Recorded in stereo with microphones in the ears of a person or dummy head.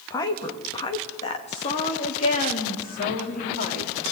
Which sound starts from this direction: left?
A woman speaking, at 0.1 s.